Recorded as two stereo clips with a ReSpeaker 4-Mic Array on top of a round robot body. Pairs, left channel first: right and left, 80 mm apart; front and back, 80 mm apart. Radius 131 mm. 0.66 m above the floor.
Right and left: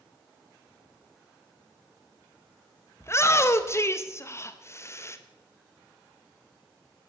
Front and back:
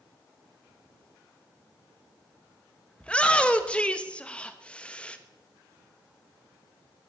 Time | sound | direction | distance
3.0 | a shout | 65° right | 1.4 m